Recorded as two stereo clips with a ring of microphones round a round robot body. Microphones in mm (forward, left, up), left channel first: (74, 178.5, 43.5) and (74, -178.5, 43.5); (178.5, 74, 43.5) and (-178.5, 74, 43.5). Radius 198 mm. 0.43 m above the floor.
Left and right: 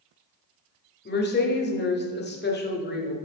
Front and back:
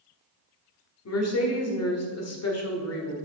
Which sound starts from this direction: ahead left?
A woman speaking, at 1.1 s.